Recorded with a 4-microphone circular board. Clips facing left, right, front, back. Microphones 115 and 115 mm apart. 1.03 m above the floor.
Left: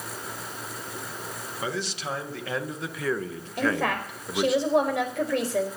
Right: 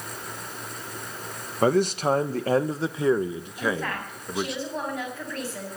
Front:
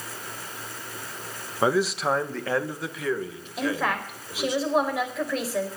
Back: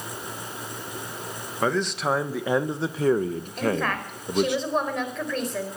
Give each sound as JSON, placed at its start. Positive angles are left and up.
{"t": 1.6, "sound": "a man speaking", "azimuth_deg": -75, "distance_m": 1.2}
{"t": 3.6, "sound": "a woman speaking", "azimuth_deg": 85, "distance_m": 4.0}